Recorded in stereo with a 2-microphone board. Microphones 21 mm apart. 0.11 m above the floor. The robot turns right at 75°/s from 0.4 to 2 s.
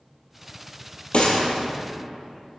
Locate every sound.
1.1 s a gunshot: 65° left (ahead or behind), 1.6 m; by 1.4 s 60° left (ahead or behind), 1.6 m